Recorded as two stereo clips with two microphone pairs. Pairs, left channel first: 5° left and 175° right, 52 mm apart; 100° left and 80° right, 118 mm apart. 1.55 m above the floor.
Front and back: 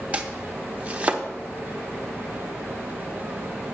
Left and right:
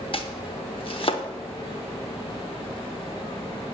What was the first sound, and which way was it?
Chopping, 130° left.